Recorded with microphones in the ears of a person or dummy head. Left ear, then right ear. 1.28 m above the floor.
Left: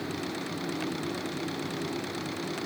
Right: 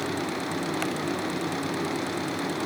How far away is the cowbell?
I don't hear a cowbell.